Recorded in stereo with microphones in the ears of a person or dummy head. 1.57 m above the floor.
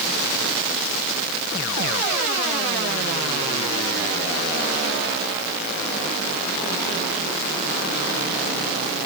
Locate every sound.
Only background noise.